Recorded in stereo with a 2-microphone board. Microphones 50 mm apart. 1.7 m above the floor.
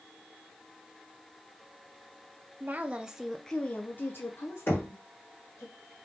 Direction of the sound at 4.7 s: 45° left (ahead or behind).